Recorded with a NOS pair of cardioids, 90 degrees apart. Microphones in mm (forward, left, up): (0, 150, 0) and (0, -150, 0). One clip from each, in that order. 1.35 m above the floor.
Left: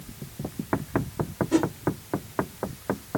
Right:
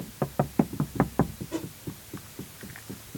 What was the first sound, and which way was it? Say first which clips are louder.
A whoosh: left 13 dB; 60° left.